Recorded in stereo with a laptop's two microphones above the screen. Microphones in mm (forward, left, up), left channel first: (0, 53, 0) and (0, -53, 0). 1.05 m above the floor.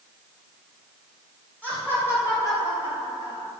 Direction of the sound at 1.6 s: 15° left (ahead or behind).